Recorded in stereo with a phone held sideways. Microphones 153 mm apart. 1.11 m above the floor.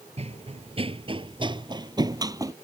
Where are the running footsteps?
45° right (ahead or behind); by 2.5 s 25° right (ahead or behind).